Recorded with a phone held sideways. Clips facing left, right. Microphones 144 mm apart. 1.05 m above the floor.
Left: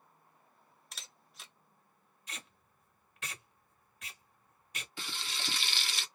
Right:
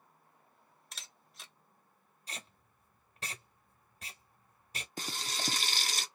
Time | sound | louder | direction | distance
0.9 | a camera shutter | even | centre (ahead or behind) | 0.7 m
2.3 | tape being pulled | right 2 dB | 35° right (ahead or behind) | 1.2 m
5.0 | frying | right 4 dB | 40° right (ahead or behind) | 0.5 m